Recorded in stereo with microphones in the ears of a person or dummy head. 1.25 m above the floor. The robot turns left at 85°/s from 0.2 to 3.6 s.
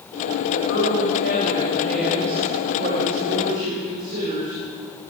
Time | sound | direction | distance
0.5 | a woman speaking | 130° left | 6.5 m